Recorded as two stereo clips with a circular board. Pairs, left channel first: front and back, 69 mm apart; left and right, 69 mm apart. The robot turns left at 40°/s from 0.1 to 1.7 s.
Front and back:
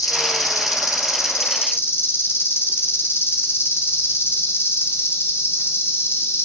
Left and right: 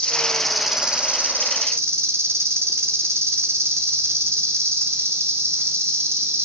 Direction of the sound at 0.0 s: 20° left.